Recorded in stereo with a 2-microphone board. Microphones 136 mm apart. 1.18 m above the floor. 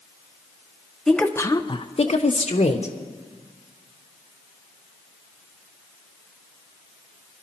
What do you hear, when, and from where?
1.1 s a woman speaking: 5° left (ahead or behind), 1.0 m; by 3.0 s 60° left (ahead or behind), 1.3 m